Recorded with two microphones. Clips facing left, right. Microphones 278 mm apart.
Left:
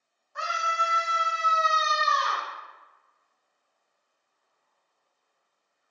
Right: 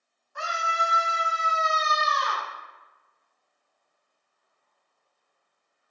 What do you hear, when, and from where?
0.3 s a scream: 40° right (ahead or behind), 1.3 m; by 2.5 s 30° right (ahead or behind), 1.6 m